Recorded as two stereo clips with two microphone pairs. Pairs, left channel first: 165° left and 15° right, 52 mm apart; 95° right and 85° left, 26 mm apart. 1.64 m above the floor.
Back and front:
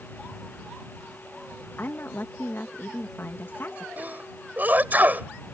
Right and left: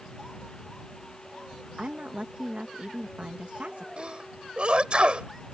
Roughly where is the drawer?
No drawer in this recording.